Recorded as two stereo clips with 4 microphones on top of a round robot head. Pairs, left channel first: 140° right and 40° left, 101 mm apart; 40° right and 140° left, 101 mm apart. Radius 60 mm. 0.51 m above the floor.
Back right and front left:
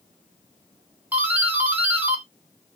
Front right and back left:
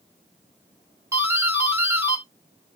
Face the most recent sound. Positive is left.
turn(degrees=100)